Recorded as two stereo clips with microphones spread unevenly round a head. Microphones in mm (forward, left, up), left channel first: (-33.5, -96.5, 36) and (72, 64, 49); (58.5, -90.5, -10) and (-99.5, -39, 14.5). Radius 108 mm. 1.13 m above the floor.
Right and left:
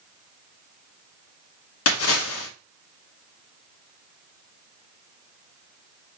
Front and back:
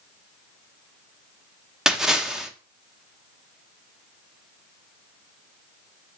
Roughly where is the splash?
Behind right.